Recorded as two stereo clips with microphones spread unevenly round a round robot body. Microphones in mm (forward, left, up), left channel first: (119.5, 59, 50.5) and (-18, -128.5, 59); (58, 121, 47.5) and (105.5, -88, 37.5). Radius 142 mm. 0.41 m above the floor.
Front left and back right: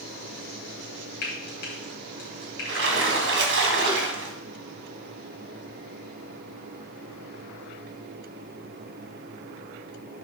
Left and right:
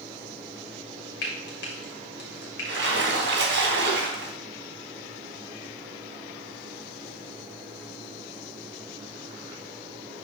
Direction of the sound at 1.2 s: 85° left.